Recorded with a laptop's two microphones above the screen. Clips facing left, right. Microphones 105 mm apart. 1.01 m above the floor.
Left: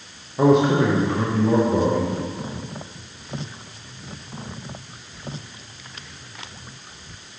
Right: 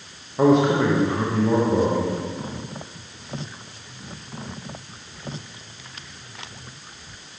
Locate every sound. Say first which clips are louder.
0.4 s a man speaking: left 1 dB; centre (ahead or behind), 0.8 m